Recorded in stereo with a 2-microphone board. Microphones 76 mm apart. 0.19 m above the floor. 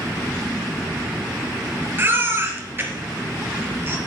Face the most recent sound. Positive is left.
turn(degrees=-30)  # may be behind; listen again after turning